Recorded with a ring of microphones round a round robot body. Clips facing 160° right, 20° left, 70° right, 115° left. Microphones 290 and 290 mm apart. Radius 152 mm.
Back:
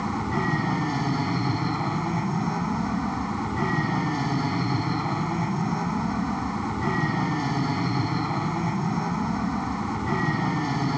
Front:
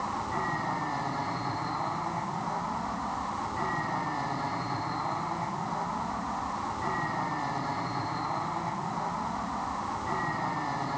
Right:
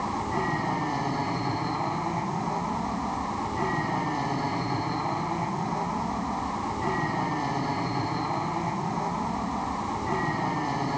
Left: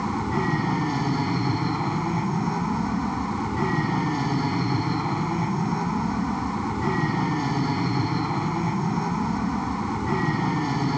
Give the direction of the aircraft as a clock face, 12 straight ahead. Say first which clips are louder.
Back 9 dB, left 5 dB; 6 o'clock.